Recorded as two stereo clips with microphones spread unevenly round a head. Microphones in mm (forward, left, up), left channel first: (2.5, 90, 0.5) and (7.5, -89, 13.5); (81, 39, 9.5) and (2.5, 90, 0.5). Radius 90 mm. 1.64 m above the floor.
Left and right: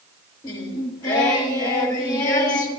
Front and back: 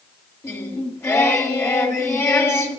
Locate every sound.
0.4 s singing: 20° left, 2 m